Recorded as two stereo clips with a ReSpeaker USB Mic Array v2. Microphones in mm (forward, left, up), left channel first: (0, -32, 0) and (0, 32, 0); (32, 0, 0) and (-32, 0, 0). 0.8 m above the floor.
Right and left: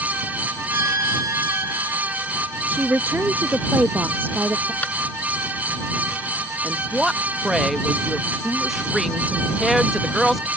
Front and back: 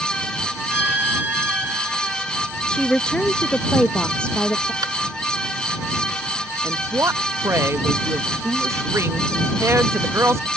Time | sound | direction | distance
0.7 | a violin | 115° left | ?
2.7 | a woman speaking | 65° left | ?
4.8 | tapping | 155° right | ?
6.6 | a woman speaking | 175° left | ?